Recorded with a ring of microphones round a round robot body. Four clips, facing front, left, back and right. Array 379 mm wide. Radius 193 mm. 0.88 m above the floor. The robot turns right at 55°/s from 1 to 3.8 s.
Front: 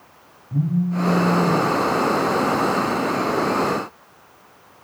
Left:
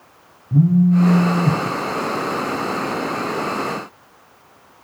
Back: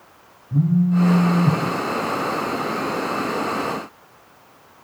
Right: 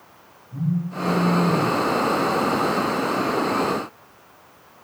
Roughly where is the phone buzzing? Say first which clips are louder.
Left 12 dB, back 3 dB; left.